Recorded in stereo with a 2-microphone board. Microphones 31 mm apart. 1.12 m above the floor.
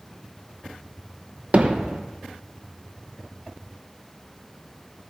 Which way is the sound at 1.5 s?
50° right (ahead or behind).